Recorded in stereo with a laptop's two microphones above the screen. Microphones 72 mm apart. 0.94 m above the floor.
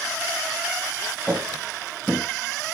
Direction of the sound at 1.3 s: 15° right (ahead or behind).